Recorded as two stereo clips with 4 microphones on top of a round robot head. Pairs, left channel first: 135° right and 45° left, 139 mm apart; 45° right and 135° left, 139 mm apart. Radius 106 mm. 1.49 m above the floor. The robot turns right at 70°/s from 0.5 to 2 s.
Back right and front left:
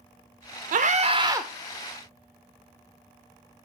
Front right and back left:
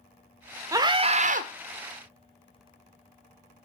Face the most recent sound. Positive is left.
turn(degrees=160)